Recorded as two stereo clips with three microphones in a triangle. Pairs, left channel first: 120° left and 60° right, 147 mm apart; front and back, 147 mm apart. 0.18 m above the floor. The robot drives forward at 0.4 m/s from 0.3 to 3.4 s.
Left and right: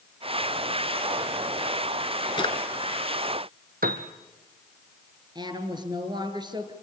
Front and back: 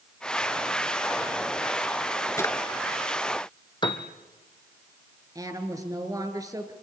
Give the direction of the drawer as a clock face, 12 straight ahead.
10 o'clock.